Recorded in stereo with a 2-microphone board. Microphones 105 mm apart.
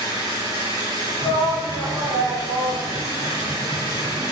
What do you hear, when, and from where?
0.0 s an engine running: 40° right (ahead or behind), 3.5 m
1.2 s a shout: 10° right (ahead or behind), 2.5 m